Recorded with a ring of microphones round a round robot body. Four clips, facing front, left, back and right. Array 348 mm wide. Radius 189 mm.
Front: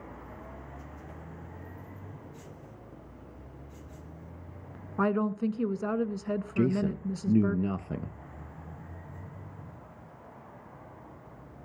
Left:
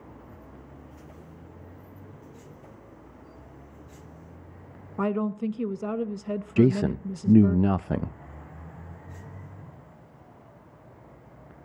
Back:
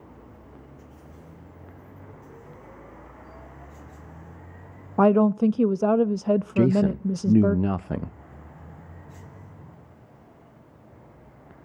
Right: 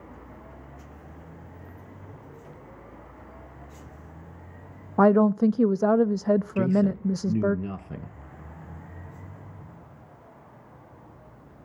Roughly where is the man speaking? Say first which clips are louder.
Left 1 dB, back 4 dB; behind left.